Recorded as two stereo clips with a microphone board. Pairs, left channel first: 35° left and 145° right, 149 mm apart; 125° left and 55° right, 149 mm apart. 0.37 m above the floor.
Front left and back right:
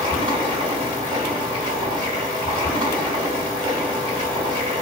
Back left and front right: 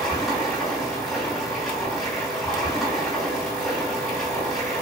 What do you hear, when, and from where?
0.0 s running water: 145° right, 1.6 m